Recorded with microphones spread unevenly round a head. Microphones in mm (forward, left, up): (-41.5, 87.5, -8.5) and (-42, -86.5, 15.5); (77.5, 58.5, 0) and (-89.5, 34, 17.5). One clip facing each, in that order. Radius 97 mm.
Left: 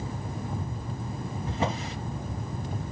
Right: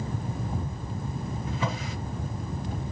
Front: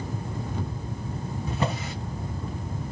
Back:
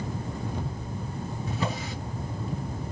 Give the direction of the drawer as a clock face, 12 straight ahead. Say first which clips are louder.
Left 3 dB, front 3 dB; 11 o'clock.